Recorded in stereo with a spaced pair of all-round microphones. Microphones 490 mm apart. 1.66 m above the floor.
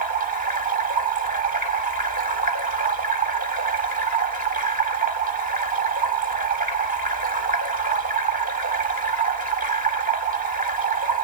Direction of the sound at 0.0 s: 15° right (ahead or behind).